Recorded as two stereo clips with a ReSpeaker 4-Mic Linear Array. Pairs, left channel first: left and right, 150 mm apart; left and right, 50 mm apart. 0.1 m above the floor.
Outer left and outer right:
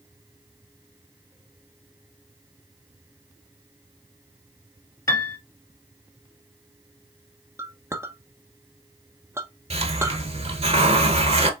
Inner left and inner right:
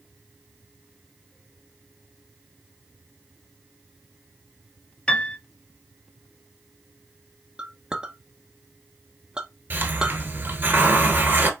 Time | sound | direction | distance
5.1 | a piano | 20° left (ahead or behind) | 0.8 m
7.6 | a clink | 15° right (ahead or behind) | 0.8 m
9.7 | a hiss | 40° right (ahead or behind) | 0.9 m